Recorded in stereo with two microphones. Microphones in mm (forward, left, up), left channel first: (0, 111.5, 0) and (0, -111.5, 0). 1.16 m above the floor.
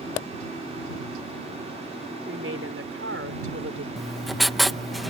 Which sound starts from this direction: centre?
Writing, at 4.0 s.